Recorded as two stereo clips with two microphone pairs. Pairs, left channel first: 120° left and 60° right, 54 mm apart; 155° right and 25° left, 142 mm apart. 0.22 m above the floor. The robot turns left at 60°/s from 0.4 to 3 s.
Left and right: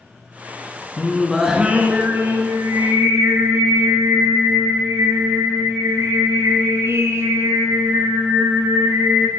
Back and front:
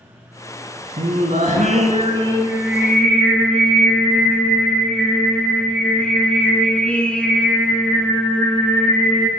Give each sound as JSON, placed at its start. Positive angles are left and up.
{"t": 1.0, "sound": "singing", "azimuth_deg": 50, "distance_m": 1.2}